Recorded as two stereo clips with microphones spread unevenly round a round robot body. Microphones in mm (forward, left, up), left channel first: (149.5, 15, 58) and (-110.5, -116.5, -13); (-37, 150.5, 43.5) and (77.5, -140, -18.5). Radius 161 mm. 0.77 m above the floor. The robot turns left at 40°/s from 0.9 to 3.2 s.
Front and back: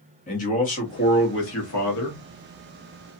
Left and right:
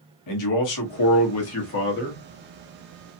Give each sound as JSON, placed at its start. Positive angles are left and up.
{"t": 0.3, "sound": "a man speaking", "azimuth_deg": 95, "distance_m": 1.4}